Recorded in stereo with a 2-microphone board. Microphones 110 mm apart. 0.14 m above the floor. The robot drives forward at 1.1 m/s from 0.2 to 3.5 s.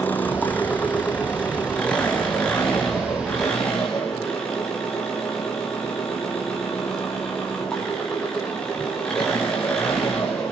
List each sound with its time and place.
0.0 s an engine running: 15° left (ahead or behind), 3 m; by 10.5 s 5° left (ahead or behind), 6.5 m